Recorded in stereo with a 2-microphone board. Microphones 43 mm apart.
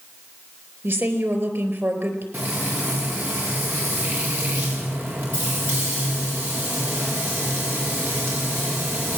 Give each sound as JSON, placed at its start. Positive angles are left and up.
{"t": 0.8, "sound": "a woman speaking", "side_deg": -65, "distance_m": 4.0}
{"t": 2.3, "sound": "frying", "side_deg": -60, "distance_m": 7.0}